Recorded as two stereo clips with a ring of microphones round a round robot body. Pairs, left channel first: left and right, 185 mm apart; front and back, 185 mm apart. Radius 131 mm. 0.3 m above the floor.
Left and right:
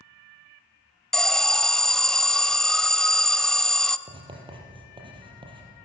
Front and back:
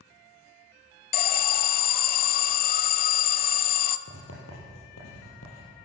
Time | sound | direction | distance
1.1 | an alarm | 5° left | 0.8 m
4.1 | writing | 25° right | 5.5 m